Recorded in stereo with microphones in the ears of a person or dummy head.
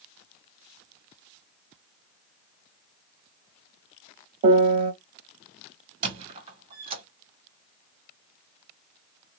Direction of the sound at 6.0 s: 30° right (ahead or behind).